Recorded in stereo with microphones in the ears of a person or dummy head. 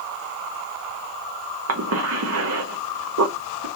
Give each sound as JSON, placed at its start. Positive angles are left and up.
{"t": 1.7, "sound": "a cough", "side_deg": -85, "distance_m": 0.6}